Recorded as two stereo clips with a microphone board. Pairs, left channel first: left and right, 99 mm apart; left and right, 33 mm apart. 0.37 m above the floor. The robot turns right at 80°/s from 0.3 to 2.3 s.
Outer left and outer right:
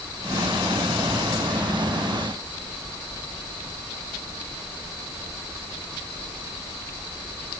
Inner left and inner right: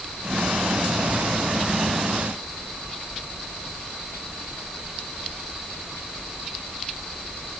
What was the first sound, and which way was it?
Only background noise.